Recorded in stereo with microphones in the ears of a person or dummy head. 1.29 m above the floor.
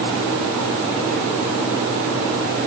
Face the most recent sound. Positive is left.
No sound to turn to.